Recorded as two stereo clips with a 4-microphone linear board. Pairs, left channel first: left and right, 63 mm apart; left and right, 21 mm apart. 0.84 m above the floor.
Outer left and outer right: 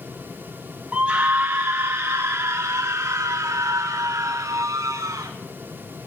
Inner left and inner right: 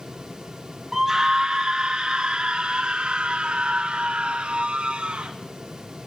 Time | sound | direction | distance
0.9 | a scream | 20° right (ahead or behind) | 0.8 m